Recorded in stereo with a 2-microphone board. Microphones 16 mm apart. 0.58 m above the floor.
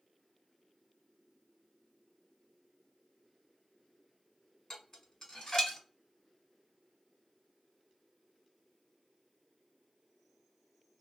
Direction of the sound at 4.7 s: 45° left (ahead or behind).